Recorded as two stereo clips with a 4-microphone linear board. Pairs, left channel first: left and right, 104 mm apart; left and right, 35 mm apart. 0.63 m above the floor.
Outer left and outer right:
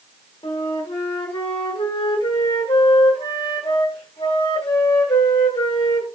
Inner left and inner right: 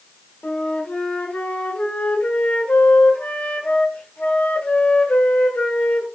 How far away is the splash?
I don't hear a splash.